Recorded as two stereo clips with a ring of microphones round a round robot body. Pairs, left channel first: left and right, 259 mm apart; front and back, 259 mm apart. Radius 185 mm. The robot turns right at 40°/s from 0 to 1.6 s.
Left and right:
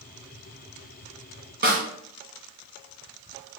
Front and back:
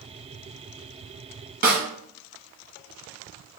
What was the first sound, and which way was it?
A snare drum, 135° right.